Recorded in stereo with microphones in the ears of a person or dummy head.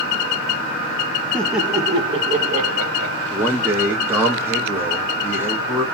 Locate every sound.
1.3 s laughter: 5° left (ahead or behind), 0.6 m; by 3.2 s 65° right (ahead or behind), 1.0 m
3.3 s a man speaking: 15° right (ahead or behind), 1.1 m